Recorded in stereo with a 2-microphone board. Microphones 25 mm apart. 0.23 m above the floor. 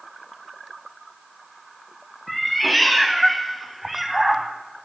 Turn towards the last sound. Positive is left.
turn(degrees=-10)  # may be behind; listen again after turning